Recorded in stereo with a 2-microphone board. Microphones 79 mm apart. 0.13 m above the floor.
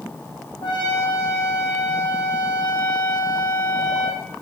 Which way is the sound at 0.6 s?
65° left (ahead or behind).